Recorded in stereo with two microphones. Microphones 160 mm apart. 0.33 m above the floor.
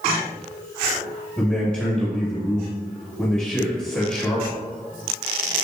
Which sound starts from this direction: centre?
A man speaking, at 1.4 s.